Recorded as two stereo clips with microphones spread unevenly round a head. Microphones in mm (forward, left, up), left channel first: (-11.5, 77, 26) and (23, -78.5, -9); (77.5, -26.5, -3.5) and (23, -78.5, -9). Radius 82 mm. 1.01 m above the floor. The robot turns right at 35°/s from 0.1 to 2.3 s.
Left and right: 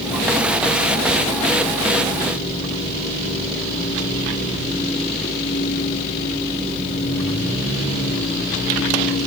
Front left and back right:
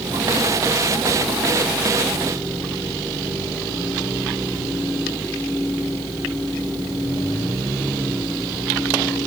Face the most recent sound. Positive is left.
No sound to turn to.